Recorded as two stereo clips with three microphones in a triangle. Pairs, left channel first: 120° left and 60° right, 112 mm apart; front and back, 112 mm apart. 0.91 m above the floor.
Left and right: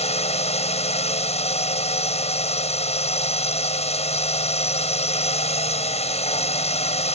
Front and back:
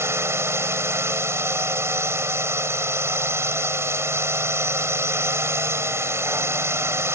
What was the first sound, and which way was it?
A drone, 115° left.